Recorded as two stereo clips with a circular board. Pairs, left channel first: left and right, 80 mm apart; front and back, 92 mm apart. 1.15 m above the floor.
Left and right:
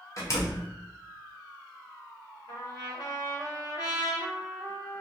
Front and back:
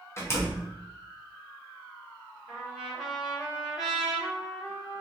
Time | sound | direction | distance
0.2 | a door slam | 50° left | 0.6 m
2.5 | a trumpet | 85° left | 1.2 m